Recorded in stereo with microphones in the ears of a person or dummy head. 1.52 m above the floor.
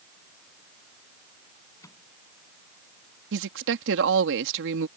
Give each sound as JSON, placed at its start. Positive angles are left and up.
{"t": 1.8, "sound": "a microwave", "side_deg": 15}
{"t": 3.3, "sound": "a woman speaking", "side_deg": -65}